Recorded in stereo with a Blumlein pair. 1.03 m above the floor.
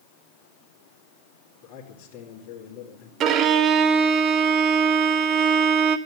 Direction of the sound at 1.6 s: 35° left.